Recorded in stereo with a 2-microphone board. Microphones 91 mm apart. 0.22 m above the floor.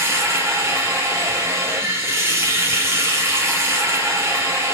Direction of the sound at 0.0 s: 35° right (ahead or behind).